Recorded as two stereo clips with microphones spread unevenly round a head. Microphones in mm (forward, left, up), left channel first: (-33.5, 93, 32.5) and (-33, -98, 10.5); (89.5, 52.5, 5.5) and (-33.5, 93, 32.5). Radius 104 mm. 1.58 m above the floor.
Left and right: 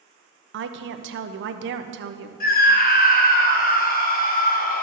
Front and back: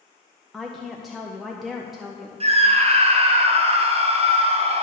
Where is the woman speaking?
115° right, 0.7 m.